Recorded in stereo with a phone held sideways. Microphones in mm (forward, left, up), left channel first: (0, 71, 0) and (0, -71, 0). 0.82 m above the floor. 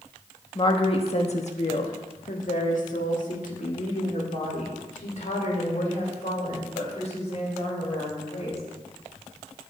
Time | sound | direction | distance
0.6 | a woman speaking | 35° left (ahead or behind) | 1.2 m